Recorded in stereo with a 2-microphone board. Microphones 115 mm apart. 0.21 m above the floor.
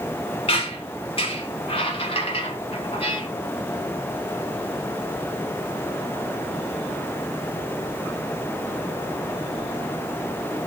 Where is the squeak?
55° left (ahead or behind), 1.2 m.